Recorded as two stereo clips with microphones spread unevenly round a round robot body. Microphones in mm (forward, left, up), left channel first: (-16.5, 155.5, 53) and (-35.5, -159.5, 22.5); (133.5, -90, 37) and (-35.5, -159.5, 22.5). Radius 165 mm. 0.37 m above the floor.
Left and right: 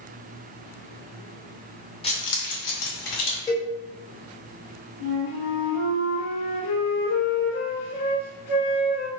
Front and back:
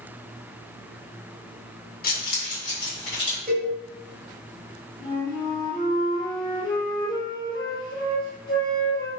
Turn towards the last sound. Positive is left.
turn(degrees=105)